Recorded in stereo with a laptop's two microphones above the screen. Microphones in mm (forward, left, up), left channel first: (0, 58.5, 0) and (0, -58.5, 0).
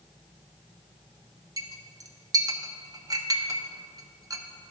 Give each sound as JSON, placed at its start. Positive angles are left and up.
{"t": 1.6, "sound": "a clink", "side_deg": -30, "distance_m": 0.9}